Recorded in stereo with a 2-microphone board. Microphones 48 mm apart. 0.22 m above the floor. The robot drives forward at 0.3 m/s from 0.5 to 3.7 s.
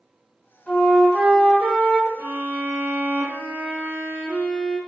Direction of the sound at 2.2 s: 50° right (ahead or behind).